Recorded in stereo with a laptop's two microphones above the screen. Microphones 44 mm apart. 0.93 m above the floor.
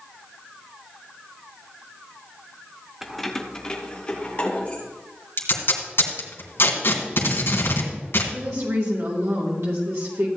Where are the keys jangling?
10° right (ahead or behind), 0.6 m; by 4.8 s 30° left (ahead or behind), 2.5 m.